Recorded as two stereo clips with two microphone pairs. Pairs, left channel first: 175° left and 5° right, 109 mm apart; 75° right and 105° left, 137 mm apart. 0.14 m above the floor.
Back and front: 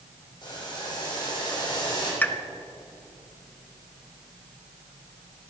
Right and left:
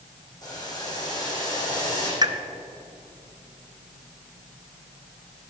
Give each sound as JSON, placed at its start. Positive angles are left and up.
{"t": 0.4, "sound": "boiling", "azimuth_deg": -135, "distance_m": 5.5}
{"t": 2.2, "sound": "a pop", "azimuth_deg": 110, "distance_m": 0.8}